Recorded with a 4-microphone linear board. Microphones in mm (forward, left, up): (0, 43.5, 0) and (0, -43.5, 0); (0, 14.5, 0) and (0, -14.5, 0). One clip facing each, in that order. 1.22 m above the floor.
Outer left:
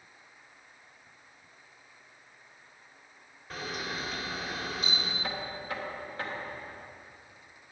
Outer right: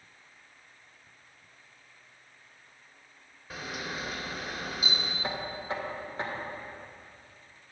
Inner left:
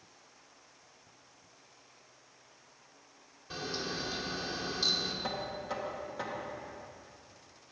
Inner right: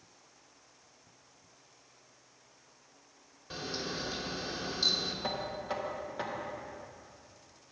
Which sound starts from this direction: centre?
A camera shutter, at 3.5 s.